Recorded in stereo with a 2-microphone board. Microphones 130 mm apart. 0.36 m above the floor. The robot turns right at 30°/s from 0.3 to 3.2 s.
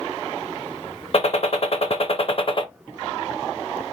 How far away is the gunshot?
About 0.5 m.